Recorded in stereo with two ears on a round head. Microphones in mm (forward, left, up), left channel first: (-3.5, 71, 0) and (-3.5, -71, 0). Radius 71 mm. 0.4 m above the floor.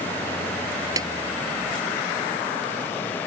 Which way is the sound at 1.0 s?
20° right (ahead or behind).